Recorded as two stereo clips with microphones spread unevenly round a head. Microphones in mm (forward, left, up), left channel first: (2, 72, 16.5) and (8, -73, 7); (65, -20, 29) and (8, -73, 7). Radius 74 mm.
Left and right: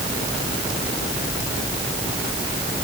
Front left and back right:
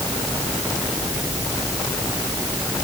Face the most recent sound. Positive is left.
No sound to turn to.